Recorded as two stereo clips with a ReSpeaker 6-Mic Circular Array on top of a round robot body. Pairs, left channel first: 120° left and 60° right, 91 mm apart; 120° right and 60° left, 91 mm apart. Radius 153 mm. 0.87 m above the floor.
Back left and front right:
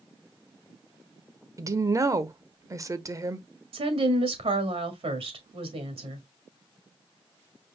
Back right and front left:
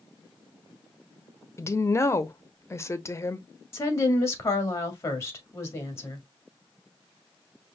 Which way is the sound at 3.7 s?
60° right.